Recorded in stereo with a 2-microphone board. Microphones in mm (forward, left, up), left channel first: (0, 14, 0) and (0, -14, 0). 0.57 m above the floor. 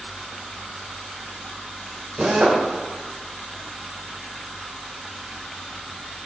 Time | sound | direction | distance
2.2 | a drill | 35° right (ahead or behind) | 2.5 m